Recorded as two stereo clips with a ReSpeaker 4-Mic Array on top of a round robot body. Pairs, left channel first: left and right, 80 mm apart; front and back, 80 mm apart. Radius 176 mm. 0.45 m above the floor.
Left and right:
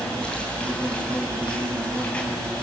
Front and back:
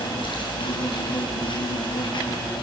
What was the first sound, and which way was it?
An insect, 15° left.